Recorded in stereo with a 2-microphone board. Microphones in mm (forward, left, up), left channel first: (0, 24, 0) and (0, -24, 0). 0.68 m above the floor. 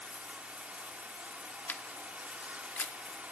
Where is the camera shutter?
35° left (ahead or behind), 1.0 m.